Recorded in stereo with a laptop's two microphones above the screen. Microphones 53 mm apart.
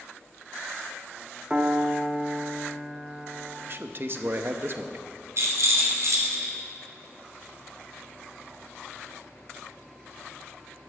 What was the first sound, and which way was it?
A piano, 25° right (ahead or behind).